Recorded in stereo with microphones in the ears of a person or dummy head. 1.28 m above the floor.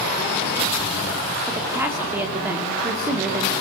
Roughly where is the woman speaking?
Centre.